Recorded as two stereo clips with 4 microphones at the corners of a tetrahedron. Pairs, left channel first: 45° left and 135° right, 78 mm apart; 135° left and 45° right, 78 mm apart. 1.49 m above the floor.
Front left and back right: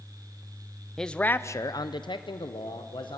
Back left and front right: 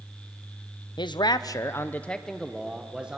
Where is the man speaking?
130° left, 0.8 m; by 3.2 s 30° left, 1.5 m.